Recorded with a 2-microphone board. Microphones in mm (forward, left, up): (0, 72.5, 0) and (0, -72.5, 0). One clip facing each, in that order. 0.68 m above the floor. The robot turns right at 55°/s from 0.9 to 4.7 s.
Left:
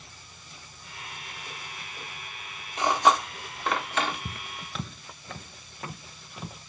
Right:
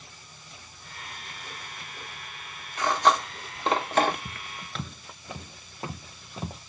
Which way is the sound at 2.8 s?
20° left (ahead or behind).